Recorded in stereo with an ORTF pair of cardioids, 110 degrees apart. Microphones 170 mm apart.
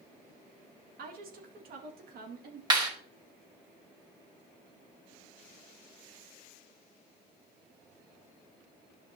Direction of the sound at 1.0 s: 60° right.